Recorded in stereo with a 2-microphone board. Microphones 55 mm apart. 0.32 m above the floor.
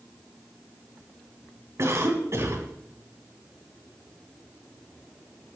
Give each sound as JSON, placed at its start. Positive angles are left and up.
{"t": 1.8, "sound": "a cough", "side_deg": -55, "distance_m": 2.5}